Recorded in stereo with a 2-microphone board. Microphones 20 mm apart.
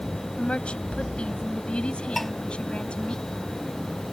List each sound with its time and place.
0.4 s a woman speaking: 75° left (ahead or behind); by 3.2 s 70° left (ahead or behind)
2.2 s dishes clattering: 5° left (ahead or behind)